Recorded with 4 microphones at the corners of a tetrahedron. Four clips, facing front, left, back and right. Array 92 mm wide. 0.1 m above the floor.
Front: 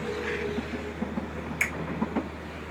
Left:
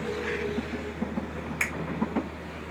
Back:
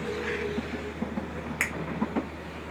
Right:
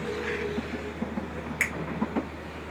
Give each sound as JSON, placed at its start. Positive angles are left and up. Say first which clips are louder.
{"t": 1.6, "sound": "a finger snap", "louder": "right 2 dB, front 1 dB", "azimuth_deg": -175, "distance_m": 2.0}